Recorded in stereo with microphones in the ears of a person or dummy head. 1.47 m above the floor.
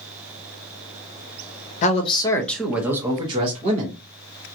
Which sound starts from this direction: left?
A man speaking, at 1.8 s.